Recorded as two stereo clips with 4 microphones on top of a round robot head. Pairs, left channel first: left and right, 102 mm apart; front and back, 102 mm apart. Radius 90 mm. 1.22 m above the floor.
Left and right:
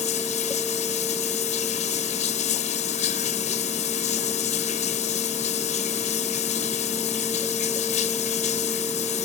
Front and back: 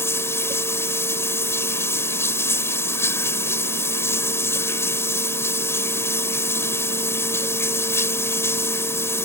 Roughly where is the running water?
Ahead left.